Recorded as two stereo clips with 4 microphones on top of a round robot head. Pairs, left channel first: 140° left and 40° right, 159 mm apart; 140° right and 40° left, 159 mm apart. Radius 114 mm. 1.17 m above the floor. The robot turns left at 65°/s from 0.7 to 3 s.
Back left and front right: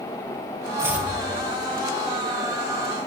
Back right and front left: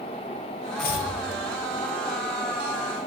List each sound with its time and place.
0.8 s chopping: 110° right, 0.7 m; by 1.1 s 135° right, 0.7 m